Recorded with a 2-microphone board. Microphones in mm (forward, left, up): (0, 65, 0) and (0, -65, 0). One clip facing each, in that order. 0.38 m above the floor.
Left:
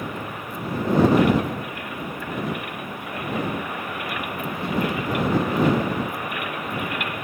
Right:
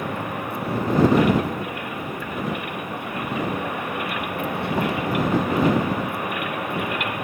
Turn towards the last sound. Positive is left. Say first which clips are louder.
# right 4 dB
turn(degrees=-70)  # may be behind; listen again after turning